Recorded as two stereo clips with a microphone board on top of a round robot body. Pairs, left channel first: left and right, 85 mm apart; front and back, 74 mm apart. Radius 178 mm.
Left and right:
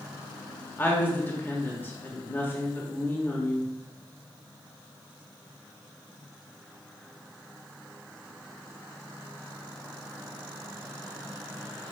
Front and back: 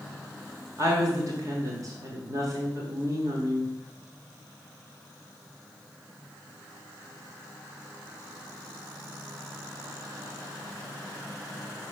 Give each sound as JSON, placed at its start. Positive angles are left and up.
{"t": 0.8, "sound": "a woman speaking", "azimuth_deg": 155, "distance_m": 1.5}